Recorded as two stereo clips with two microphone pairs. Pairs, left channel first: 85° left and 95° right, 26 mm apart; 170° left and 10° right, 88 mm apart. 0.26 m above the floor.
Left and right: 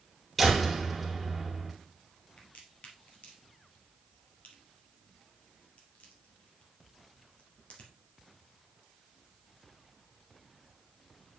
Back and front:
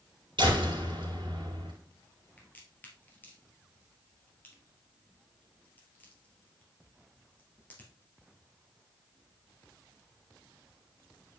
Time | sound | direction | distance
0.4 | a door slam | 5° right | 3 m
2.4 | a crack | 100° left | 2.5 m